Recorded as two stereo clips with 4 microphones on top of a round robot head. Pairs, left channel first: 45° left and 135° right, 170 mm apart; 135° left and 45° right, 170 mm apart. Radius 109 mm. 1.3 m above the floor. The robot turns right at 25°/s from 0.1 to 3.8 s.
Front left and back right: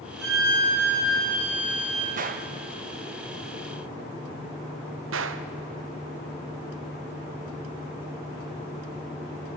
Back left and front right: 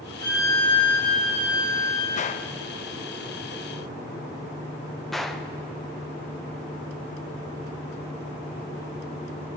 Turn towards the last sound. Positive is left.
turn(degrees=-135)